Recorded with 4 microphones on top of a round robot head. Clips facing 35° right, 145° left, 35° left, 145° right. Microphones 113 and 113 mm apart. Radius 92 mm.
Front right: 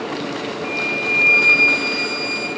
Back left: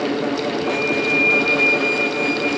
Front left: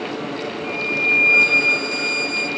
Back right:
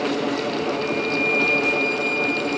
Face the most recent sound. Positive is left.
turn(degrees=20)